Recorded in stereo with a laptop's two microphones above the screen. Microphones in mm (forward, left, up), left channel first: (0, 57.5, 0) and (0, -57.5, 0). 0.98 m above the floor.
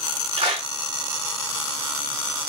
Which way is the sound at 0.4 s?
65° right (ahead or behind).